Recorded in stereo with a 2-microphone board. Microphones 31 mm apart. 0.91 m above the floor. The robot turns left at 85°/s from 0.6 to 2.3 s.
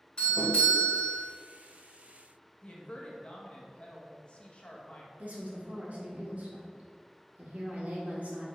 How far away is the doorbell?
About 2.0 m.